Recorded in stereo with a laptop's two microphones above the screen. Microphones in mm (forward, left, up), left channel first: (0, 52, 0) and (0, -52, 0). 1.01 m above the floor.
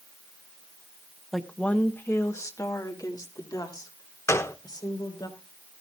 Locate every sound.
1.3 s a woman speaking: centre (ahead or behind), 0.8 m; by 5.3 s 45° left (ahead or behind), 4 m
4.3 s a gunshot: 25° left (ahead or behind), 0.6 m